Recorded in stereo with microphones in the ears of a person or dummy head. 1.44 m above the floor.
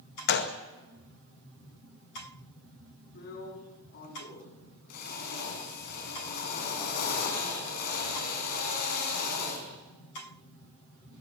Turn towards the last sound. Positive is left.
turn(degrees=50)  # may be behind; listen again after turning